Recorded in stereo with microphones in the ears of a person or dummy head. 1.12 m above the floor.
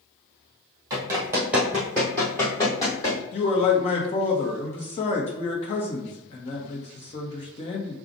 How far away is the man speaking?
About 1.2 m.